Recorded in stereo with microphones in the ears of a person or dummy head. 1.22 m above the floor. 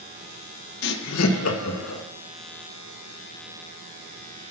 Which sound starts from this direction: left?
Laughter, at 0.8 s.